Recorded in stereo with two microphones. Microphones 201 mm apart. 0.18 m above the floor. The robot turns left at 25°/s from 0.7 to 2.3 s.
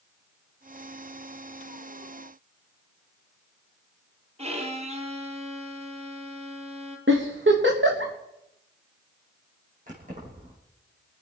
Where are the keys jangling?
40° right (ahead or behind), 6 m.